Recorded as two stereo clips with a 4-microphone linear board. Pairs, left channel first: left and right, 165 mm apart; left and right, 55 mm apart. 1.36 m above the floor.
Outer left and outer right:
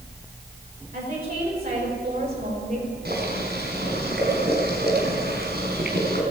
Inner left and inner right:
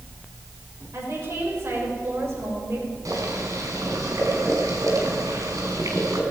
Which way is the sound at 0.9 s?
65° right (ahead or behind).